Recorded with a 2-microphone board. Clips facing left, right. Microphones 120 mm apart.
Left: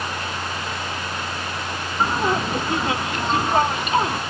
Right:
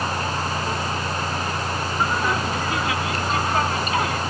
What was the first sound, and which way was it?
Laughter, 30° left (ahead or behind).